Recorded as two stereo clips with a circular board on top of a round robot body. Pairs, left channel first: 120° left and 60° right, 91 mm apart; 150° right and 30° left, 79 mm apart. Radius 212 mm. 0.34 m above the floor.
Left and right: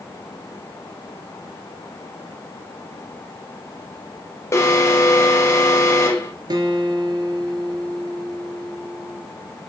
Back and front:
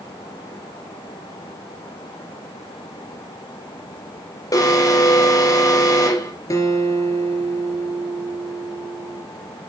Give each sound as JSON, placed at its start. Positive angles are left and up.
{"t": 4.5, "sound": "an alarm", "azimuth_deg": 175, "distance_m": 3.5}
{"t": 6.5, "sound": "a guitar", "azimuth_deg": -105, "distance_m": 3.0}